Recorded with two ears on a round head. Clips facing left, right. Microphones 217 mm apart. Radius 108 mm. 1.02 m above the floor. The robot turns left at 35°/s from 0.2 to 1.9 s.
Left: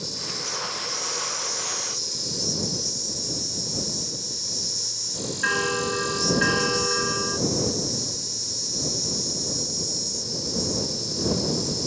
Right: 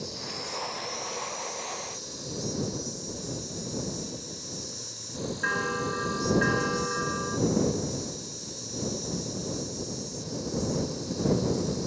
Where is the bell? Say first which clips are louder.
Left 7 dB; 55° left (ahead or behind).